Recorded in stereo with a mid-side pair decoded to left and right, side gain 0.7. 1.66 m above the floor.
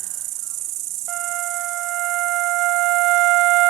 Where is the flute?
60° right.